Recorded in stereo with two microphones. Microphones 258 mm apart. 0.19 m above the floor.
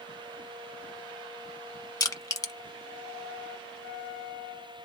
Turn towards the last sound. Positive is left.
turn(degrees=15)  # may be behind; listen again after turning